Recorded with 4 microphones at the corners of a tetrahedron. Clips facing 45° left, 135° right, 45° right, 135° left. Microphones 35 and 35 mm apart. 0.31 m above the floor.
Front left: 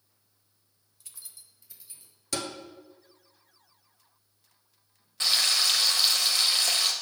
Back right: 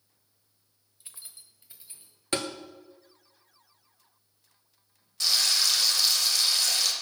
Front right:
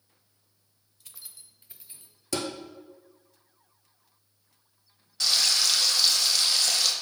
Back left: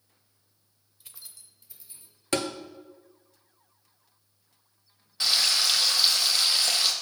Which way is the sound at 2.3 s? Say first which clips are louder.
Back right 3 dB, back left 3 dB; 175° left.